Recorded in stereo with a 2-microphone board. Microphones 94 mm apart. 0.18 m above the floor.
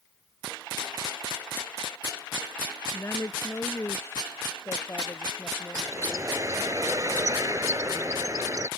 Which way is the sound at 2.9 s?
30° left (ahead or behind).